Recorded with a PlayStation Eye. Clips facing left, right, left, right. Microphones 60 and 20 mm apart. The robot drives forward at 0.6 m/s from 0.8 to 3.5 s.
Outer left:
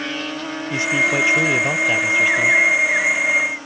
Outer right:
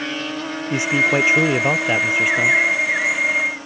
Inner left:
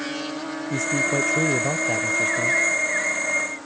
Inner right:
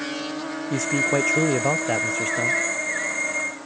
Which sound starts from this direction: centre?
A man speaking, at 0.7 s.